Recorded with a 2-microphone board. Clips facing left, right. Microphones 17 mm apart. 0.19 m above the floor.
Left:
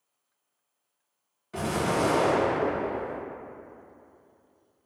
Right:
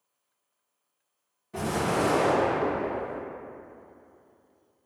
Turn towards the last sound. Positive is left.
turn(degrees=40)  # may be behind; listen again after turning